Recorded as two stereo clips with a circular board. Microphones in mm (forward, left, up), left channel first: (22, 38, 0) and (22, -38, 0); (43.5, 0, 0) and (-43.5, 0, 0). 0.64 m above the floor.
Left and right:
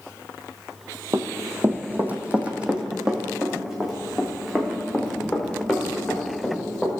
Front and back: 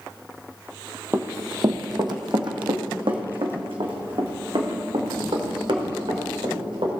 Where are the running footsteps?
125° right, 1.0 m; by 6.9 s 175° left, 4.5 m.